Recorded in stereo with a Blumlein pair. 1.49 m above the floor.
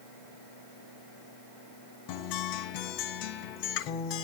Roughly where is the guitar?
Ahead left.